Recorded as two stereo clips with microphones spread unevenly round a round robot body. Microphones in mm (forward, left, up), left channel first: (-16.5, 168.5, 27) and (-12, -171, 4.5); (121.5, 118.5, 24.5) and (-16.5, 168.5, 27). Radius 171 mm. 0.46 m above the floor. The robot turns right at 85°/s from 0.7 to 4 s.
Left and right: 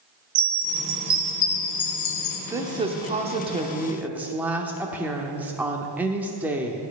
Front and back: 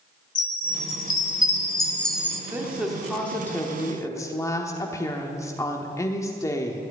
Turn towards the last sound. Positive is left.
turn(degrees=-20)